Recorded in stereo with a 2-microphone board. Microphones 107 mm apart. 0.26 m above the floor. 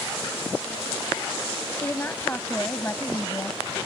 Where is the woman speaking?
20° left (ahead or behind).